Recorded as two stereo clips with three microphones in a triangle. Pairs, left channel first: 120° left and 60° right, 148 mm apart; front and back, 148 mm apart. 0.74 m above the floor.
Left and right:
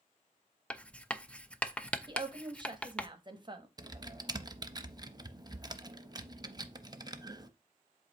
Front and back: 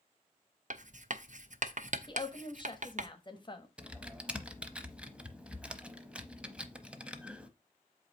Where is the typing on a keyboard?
105° right, 0.6 m.